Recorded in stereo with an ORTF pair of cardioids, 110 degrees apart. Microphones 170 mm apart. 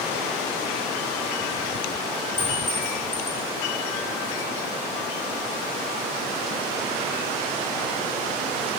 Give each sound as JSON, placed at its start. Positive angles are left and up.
{"t": 2.4, "sound": "a clink", "azimuth_deg": 25, "distance_m": 6.0}